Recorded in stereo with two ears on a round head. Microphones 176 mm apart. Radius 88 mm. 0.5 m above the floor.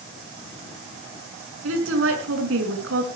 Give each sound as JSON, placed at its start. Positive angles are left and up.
{"t": 1.6, "sound": "a woman speaking", "side_deg": -80, "distance_m": 6.5}